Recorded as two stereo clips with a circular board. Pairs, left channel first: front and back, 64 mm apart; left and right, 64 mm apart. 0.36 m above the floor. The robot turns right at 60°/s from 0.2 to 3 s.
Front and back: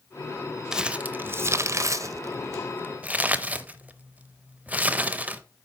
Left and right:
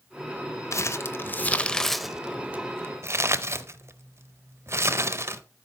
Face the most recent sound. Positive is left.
turn(degrees=-120)